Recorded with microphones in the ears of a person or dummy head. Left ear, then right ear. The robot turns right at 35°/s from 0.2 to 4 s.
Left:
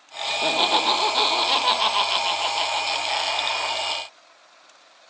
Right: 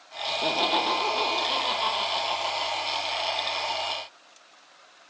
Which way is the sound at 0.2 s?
10° left.